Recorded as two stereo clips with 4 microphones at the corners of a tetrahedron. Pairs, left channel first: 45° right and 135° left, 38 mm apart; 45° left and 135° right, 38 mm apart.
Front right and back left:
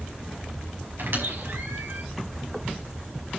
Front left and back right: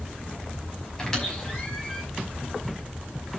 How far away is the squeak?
About 5 m.